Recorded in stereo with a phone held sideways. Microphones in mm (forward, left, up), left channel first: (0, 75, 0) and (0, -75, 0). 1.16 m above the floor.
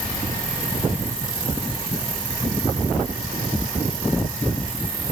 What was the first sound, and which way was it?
Only background noise.